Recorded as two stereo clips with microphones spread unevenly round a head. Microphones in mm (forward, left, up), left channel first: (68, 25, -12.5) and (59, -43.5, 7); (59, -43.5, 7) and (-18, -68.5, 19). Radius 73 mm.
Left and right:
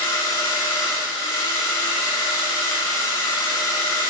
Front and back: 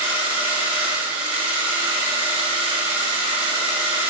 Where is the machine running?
150° left, 3 m.